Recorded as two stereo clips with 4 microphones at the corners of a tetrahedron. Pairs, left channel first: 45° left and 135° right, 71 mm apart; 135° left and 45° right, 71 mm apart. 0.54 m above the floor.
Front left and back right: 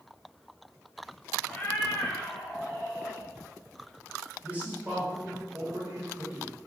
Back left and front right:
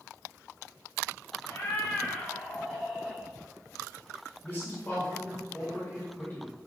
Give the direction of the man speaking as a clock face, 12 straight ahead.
6 o'clock.